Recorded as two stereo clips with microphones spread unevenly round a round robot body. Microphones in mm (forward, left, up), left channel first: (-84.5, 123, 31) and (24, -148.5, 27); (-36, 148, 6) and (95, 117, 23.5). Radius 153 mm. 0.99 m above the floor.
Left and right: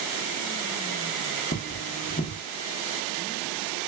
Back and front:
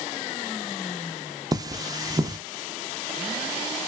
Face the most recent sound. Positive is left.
turn(degrees=45)